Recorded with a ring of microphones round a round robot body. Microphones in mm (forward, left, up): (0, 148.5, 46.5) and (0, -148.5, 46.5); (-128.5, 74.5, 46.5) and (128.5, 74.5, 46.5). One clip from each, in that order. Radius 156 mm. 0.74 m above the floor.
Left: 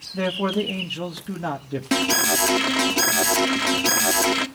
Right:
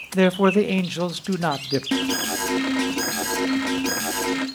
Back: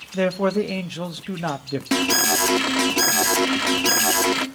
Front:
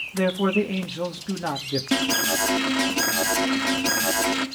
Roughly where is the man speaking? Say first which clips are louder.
Right 6 dB, back 2 dB; behind right.